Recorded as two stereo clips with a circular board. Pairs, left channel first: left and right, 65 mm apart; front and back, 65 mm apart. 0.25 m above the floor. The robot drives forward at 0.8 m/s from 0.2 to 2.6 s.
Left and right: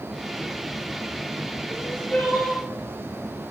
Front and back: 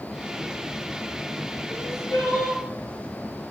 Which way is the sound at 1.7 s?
15° left.